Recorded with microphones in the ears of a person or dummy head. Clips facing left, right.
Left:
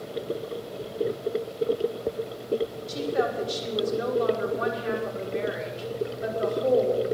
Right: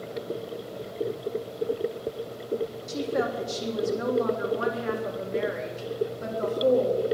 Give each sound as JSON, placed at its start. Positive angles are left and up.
{"t": 2.9, "sound": "a woman speaking", "side_deg": -60, "distance_m": 3.0}